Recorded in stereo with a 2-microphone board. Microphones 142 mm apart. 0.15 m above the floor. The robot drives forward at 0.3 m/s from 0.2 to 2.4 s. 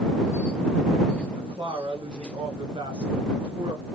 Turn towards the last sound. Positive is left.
turn(degrees=-35)  # may be behind; listen again after turning